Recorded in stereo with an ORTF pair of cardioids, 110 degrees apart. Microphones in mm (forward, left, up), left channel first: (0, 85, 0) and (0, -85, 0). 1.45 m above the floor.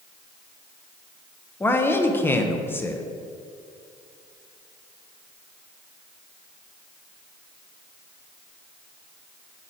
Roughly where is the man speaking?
Ahead.